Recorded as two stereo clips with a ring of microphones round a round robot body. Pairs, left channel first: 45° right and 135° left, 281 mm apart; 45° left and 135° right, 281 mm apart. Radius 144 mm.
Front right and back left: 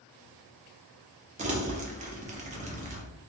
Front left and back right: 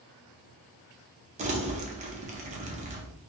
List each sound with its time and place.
1.4 s crumpling: straight behind, 0.6 m